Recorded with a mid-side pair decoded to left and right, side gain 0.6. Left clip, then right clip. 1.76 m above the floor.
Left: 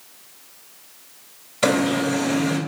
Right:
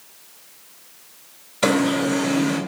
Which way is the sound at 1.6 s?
5° right.